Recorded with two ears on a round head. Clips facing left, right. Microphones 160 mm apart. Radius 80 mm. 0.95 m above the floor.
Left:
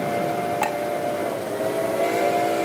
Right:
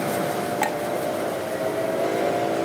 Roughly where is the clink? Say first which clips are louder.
Left 1 dB; centre.